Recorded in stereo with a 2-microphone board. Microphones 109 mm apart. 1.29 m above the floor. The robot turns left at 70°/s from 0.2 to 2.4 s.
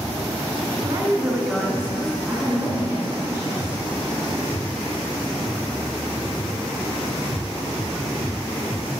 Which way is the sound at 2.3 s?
20° right (ahead or behind).